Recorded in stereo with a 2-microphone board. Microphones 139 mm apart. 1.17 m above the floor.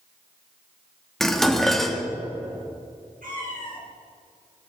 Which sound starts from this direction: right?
A cat meowing, at 3.2 s.